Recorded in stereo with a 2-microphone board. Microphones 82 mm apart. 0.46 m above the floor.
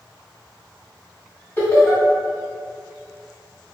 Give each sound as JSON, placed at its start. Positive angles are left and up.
{"t": 1.6, "sound": "laughter", "side_deg": 30, "distance_m": 1.6}